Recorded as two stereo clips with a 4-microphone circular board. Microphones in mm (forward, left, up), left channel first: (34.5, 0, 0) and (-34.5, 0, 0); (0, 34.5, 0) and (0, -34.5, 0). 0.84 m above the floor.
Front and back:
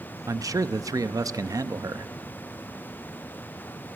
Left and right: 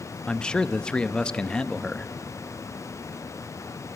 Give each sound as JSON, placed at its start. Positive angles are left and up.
{"t": 0.3, "sound": "a man speaking", "azimuth_deg": 165, "distance_m": 0.6}